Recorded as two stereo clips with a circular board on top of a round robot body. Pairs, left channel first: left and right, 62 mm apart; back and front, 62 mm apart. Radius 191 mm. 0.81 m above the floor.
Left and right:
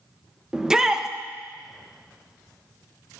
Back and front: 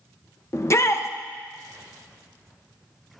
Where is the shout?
170° right, 1.1 m.